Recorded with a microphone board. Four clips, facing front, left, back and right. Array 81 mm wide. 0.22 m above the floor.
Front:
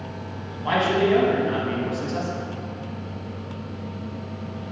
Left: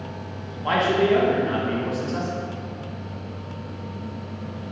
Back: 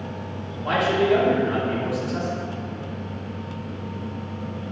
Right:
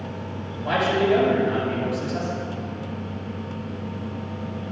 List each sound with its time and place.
0.6 s a man speaking: 65° left, 2 m